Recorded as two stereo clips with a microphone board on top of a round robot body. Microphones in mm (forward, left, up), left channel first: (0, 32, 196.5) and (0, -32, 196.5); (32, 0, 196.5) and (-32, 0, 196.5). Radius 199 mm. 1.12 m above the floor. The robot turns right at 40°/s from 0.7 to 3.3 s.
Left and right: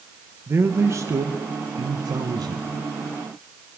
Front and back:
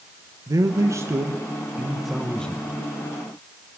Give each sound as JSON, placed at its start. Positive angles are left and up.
{"t": 0.5, "sound": "a man speaking", "azimuth_deg": -145, "distance_m": 1.0}